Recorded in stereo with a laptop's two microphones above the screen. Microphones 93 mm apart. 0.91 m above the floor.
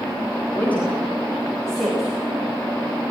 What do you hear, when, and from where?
0.5 s a woman speaking: 20° left (ahead or behind), 4 m; by 2.1 s centre (ahead or behind), 4 m